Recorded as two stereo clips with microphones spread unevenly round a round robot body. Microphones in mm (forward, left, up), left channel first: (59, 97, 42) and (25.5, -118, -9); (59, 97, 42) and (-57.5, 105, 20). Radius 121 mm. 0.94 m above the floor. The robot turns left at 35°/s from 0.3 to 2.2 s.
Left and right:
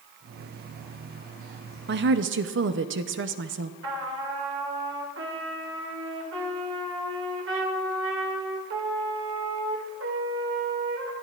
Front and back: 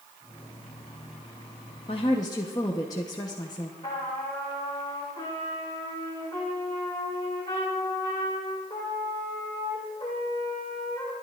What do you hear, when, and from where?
1.9 s a woman speaking: 65° right, 0.8 m; by 3.7 s 75° right, 0.8 m
3.8 s a trumpet: 75° right, 2.5 m